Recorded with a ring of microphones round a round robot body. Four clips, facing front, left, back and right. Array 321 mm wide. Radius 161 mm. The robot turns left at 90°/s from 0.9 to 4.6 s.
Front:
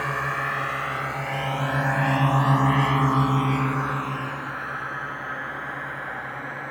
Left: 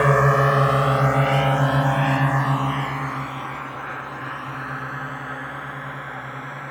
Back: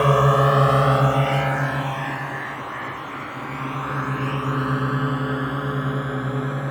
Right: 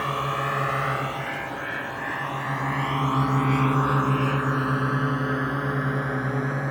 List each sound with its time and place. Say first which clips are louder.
0.0 s a drone: left 9 dB, back 11 dB; 135° left; by 6.7 s 145° right